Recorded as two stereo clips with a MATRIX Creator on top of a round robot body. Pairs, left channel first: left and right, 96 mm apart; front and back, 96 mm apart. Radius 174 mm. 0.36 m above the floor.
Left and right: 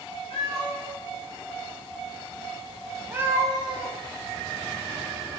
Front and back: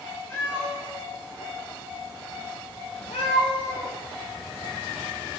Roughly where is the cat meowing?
Ahead left.